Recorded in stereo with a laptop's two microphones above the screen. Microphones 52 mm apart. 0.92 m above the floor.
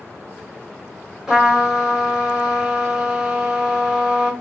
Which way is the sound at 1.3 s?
15° right (ahead or behind).